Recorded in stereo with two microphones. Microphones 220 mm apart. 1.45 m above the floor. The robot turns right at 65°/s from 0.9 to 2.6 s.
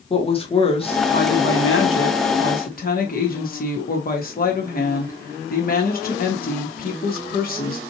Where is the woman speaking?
25° left, 1.3 m; by 7.8 s 135° left, 1.3 m.